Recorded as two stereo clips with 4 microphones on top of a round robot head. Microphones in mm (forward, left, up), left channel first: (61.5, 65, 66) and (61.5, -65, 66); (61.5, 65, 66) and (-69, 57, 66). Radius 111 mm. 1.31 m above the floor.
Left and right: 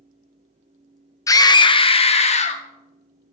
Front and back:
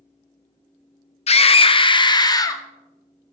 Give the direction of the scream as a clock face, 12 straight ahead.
11 o'clock.